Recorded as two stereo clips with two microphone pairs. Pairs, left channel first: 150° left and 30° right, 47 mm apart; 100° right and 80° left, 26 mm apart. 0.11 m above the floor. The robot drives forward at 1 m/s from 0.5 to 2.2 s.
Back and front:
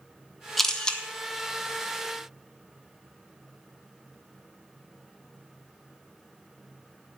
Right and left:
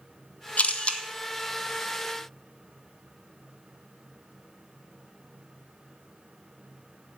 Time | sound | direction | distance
0.6 | a camera shutter | 125° right | 0.9 m